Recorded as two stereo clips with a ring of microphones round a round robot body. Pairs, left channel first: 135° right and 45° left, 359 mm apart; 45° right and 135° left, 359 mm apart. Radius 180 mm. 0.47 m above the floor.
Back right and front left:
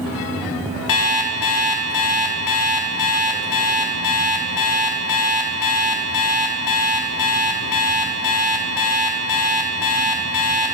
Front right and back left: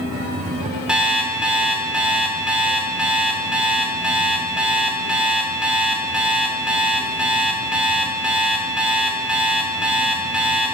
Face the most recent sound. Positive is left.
turn(degrees=-140)